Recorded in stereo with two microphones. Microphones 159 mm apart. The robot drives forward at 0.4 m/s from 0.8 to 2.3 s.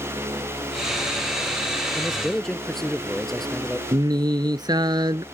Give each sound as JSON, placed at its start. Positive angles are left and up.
{"t": 1.9, "sound": "a man speaking", "side_deg": 5}
{"t": 3.9, "sound": "singing", "side_deg": -25}